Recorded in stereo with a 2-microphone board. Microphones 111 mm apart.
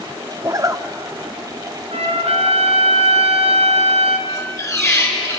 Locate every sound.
0.4 s a zipper: 35° right (ahead or behind), 1.1 m
1.9 s a trumpet: 75° right (ahead or behind), 3 m
4.3 s a squeak: 30° left (ahead or behind), 4 m